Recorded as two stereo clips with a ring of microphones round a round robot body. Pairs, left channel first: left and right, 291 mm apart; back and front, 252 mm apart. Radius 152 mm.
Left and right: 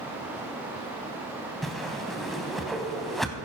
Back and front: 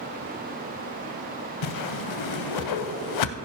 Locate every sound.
1.6 s a whoosh: straight behind, 0.6 m